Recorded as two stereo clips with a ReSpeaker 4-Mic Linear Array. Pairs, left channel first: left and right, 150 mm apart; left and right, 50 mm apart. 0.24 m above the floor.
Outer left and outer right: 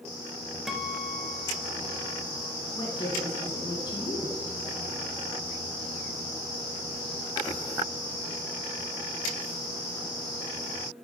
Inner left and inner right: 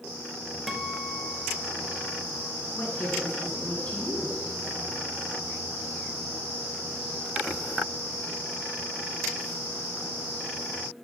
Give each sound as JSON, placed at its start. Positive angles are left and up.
{"t": 0.7, "sound": "a guitar", "side_deg": -5, "distance_m": 0.8}
{"t": 2.8, "sound": "a woman speaking", "side_deg": 30, "distance_m": 3.0}